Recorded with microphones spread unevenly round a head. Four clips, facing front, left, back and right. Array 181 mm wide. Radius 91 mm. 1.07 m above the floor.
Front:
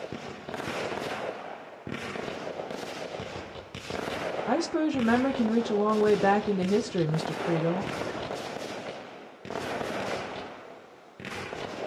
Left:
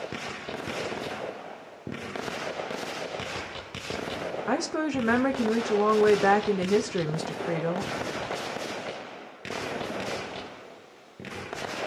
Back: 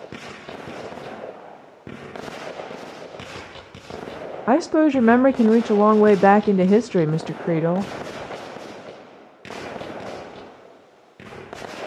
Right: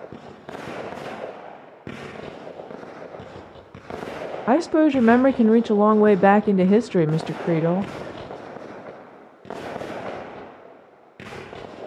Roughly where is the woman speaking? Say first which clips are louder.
Right 12 dB, back 11 dB; behind right.